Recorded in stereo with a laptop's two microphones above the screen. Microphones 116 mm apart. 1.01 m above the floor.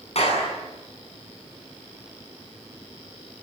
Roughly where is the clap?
Left.